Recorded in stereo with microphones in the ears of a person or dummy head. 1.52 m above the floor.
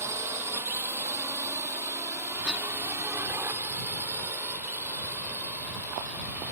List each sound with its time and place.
0.0 s a drone: 15° right (ahead or behind); by 6.5 s 10° right (ahead or behind)
2.4 s a cough: centre (ahead or behind)